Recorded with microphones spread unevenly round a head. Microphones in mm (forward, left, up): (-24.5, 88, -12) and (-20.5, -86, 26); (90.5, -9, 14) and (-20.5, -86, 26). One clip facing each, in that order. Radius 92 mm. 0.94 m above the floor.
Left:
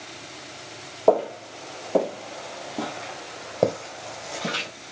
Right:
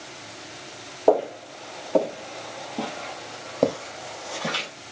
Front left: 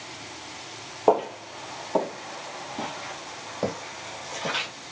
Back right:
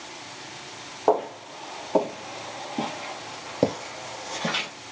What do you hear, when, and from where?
1.1 s footsteps: 30° right, 1.0 m; by 4.7 s straight behind, 2.5 m